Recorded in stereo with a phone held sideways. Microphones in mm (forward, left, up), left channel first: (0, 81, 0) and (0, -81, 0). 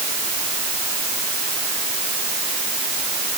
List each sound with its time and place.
Only background noise.